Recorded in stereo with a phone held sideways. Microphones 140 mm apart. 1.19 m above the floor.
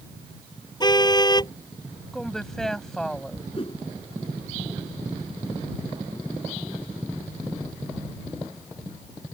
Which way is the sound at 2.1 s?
5° left (ahead or behind).